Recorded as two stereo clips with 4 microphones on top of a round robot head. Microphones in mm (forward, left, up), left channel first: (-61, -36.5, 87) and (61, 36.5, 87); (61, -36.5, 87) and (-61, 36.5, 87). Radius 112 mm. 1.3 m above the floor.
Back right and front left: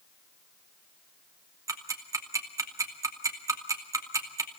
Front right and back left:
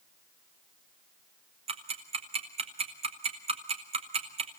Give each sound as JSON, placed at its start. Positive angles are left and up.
{"t": 1.7, "sound": "ticking", "azimuth_deg": 100, "distance_m": 2.5}